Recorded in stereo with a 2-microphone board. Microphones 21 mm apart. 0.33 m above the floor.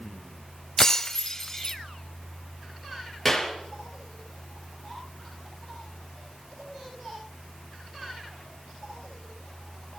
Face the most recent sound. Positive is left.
turn(degrees=15)  # may be behind; listen again after turning